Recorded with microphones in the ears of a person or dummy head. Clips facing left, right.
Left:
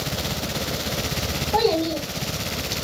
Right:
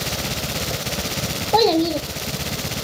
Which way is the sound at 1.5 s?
55° right (ahead or behind).